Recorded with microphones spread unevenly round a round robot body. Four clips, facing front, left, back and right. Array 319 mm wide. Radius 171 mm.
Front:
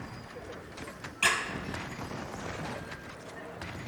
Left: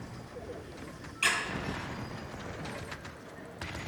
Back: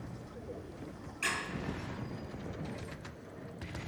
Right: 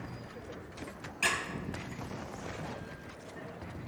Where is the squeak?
30° right, 2 m.